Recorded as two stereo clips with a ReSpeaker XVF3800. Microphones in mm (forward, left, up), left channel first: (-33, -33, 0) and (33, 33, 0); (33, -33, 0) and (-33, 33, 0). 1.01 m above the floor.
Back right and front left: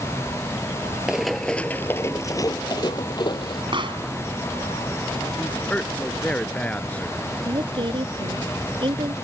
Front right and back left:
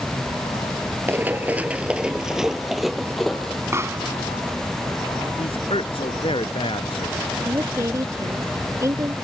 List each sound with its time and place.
1.1 s running footsteps: 120° left; by 3.6 s 130° right
3.7 s a pop: 75° left
5.4 s a man speaking: 60° right
7.5 s a woman speaking: 75° left